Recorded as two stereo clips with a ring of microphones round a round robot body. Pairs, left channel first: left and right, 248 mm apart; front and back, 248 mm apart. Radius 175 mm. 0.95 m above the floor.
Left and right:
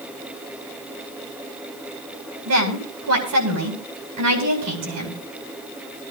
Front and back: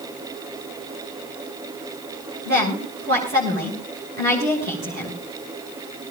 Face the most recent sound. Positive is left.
turn(degrees=-115)